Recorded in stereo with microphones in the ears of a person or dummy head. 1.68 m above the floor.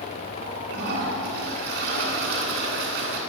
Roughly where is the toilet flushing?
Right.